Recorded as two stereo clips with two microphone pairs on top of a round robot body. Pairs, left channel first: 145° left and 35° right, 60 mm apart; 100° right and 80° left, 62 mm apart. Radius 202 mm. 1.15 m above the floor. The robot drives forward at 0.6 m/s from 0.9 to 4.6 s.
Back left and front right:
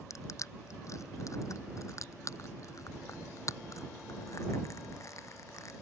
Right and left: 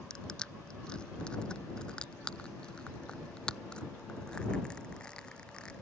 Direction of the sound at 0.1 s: Straight behind.